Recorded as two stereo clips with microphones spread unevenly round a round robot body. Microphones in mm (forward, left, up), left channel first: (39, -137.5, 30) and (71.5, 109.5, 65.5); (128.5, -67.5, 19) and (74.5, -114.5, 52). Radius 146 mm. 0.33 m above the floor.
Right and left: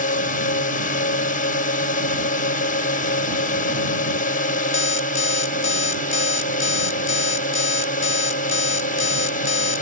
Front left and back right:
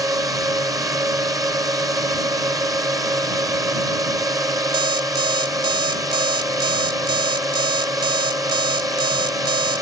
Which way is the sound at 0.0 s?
95° right.